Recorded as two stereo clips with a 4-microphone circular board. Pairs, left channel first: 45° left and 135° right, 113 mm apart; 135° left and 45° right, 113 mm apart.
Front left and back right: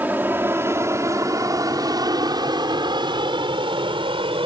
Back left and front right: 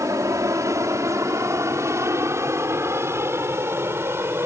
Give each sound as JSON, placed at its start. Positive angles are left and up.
{"t": 0.0, "sound": "an aircraft", "azimuth_deg": -75}